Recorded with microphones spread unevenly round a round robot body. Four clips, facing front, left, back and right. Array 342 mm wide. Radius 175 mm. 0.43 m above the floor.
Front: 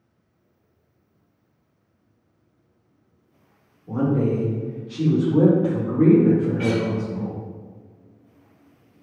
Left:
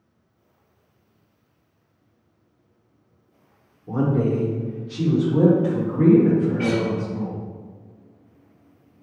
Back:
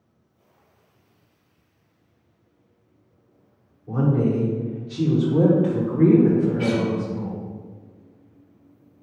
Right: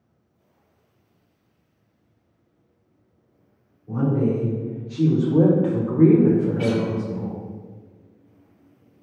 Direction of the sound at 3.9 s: 95° left.